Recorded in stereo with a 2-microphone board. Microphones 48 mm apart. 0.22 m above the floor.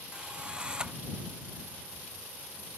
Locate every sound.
0.1 s a drill: 15° right (ahead or behind)